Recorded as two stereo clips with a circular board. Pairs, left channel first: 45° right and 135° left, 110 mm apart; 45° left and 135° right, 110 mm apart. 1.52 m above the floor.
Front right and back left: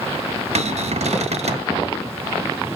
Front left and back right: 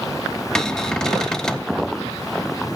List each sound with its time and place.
0.6 s a cupboard door: 130° left, 0.5 m